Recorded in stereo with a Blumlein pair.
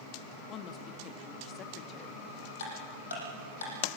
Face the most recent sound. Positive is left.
turn(degrees=70)